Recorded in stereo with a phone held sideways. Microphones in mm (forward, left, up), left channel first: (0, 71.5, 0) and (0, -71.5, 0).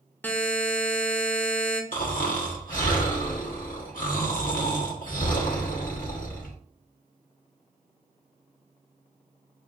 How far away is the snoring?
About 0.9 m.